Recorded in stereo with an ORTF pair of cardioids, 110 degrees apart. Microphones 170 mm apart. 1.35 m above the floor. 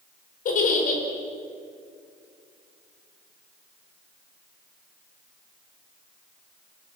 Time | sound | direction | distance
0.5 | a giggle | 50° left | 5 m